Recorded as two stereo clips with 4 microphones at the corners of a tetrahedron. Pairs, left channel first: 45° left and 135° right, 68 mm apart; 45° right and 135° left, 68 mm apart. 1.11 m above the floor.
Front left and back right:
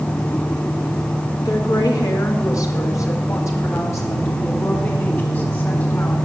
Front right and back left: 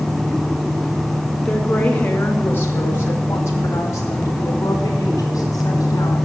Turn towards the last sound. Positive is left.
turn(degrees=-15)